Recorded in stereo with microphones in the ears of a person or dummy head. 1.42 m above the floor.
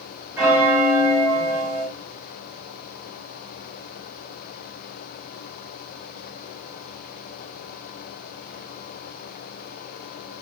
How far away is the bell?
About 2 m.